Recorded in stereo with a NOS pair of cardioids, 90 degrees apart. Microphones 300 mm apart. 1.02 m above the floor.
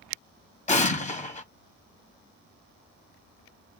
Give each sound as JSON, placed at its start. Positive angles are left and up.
{"t": 0.7, "sound": "an explosion", "azimuth_deg": 25, "distance_m": 1.3}